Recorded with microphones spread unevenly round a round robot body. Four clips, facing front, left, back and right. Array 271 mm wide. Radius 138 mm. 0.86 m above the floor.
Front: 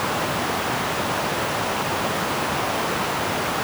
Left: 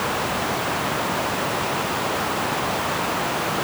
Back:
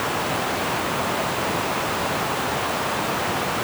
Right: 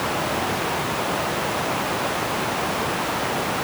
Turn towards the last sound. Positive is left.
No sound to turn to.